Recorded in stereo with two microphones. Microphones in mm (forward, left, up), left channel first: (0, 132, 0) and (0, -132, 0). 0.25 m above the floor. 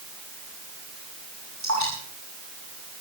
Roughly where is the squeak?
I don't hear a squeak.